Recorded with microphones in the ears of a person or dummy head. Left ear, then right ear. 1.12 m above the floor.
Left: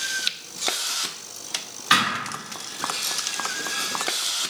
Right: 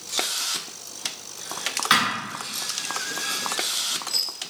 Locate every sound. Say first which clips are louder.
1.9 s a thud: left 1 dB; 45° right (ahead or behind), 1.6 m